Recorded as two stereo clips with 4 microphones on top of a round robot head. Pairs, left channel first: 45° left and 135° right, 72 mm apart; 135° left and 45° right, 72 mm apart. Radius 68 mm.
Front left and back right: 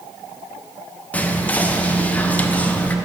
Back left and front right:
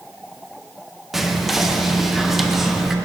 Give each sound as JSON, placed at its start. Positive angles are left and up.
{"t": 1.1, "sound": "whispering", "azimuth_deg": 35, "distance_m": 0.5}